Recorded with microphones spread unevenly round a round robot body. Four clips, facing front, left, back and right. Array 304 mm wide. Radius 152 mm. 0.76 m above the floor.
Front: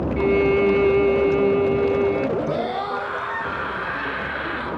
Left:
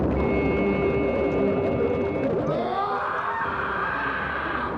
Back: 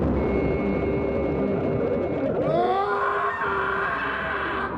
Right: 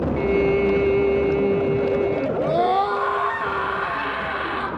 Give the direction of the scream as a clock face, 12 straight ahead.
5 o'clock.